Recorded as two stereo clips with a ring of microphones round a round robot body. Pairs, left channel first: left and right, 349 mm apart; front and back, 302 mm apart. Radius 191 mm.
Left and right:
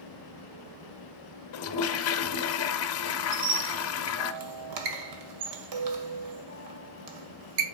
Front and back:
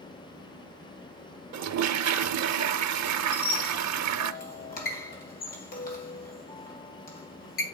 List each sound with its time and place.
1.5 s a toilet flushing: 140° left, 0.8 m
3.3 s a squeak: 65° right, 2 m